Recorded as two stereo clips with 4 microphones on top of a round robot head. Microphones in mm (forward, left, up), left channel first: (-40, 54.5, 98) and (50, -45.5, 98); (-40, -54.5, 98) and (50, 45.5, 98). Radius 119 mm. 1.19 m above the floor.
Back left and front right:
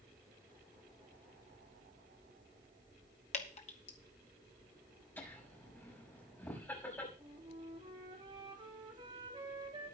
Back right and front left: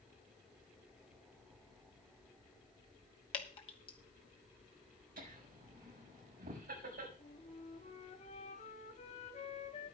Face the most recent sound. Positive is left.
turn(degrees=-100)